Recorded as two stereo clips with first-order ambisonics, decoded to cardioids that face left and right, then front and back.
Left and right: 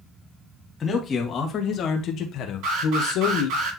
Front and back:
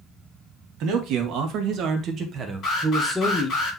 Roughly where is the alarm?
Ahead right.